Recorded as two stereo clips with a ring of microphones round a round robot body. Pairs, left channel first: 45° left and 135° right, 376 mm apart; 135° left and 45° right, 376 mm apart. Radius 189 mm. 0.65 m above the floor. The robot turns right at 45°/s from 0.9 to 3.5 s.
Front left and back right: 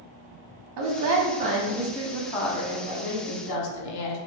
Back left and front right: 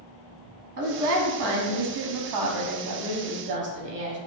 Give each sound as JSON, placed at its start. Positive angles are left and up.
{"t": 0.8, "sound": "a woman speaking", "azimuth_deg": -110, "distance_m": 0.9}